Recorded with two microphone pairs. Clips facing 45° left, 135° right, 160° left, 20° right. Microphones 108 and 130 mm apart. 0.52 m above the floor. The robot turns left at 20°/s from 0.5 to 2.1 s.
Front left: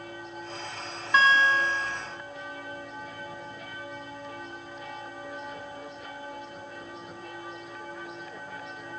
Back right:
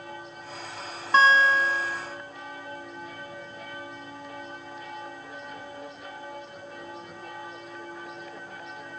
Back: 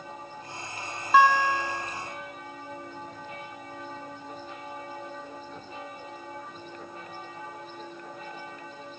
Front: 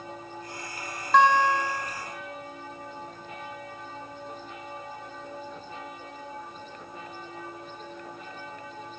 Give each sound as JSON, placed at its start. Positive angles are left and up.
{"t": 1.1, "sound": "a guitar", "azimuth_deg": -125, "distance_m": 0.7}